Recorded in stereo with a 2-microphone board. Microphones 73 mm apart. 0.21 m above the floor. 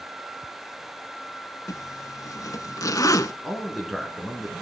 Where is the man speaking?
Centre (ahead or behind), 3 m.